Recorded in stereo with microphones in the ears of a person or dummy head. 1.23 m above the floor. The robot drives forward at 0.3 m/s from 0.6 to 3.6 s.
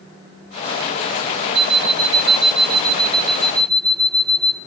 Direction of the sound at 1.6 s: 30° right (ahead or behind).